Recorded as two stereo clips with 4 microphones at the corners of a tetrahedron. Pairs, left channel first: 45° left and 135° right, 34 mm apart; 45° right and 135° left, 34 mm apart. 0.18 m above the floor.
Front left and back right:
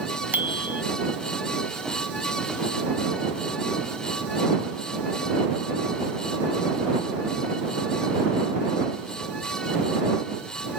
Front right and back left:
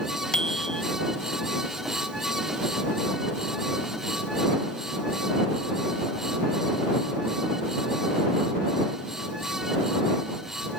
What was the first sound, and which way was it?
A bicycle bell, 110° right.